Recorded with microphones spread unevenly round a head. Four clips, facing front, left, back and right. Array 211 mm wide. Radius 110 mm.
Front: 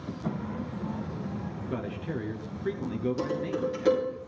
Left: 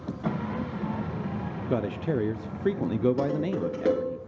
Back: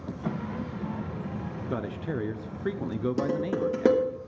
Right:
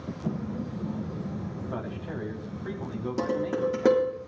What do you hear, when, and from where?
1.7 s a man speaking: 100° left, 0.6 m
3.2 s dishes clattering: 155° right, 3.5 m